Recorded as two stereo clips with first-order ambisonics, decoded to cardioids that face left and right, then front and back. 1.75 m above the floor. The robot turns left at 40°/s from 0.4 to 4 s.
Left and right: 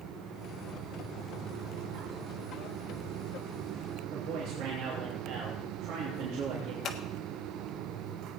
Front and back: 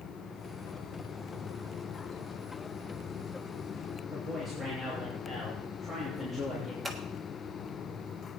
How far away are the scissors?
About 1.3 m.